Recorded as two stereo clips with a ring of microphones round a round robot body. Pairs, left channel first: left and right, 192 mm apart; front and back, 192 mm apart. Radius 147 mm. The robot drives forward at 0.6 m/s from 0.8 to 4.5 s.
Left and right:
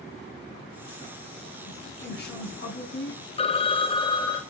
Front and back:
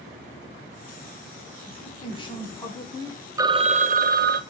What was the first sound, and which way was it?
A woman speaking, 60° left.